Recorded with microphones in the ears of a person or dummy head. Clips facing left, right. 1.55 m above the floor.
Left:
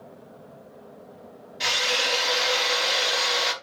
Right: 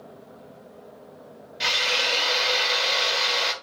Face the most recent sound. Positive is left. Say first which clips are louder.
# left 1 dB
turn(degrees=0)  # may be behind; listen again after turning